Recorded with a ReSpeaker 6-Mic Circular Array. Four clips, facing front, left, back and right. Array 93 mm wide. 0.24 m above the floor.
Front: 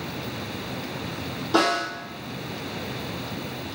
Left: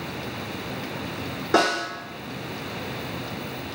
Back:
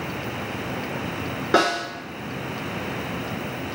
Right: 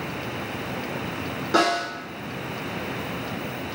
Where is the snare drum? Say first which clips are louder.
Even, back 1 dB; 165° left, 1.1 m.